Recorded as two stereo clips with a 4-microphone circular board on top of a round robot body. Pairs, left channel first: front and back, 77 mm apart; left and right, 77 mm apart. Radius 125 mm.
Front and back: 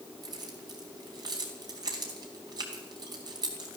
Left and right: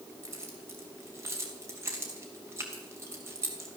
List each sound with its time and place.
0.2 s keys jangling: 145° right, 2.5 m